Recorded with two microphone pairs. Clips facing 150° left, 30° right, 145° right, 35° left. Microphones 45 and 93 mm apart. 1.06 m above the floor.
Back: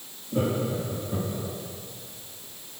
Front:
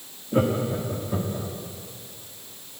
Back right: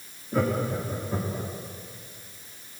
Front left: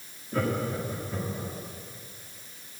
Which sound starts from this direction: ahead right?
Laughter, at 0.3 s.